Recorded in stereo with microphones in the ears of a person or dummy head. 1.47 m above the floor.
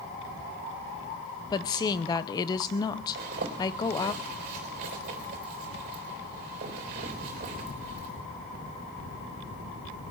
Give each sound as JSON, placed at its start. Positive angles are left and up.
{"t": 1.5, "sound": "a woman speaking", "side_deg": 20, "distance_m": 0.6}
{"t": 3.1, "sound": "a zipper", "side_deg": -45, "distance_m": 3.5}